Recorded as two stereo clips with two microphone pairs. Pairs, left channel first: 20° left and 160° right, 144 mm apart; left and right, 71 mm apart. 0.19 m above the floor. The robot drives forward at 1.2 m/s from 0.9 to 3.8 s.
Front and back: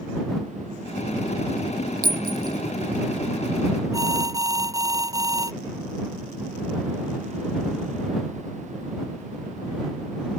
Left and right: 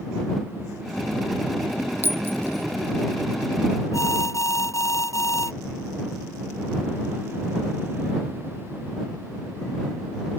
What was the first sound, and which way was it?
A clink, 150° right.